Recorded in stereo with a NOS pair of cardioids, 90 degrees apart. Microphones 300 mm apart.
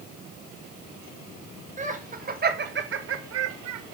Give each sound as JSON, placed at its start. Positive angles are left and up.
{"t": 1.8, "sound": "laughter", "azimuth_deg": -25, "distance_m": 2.5}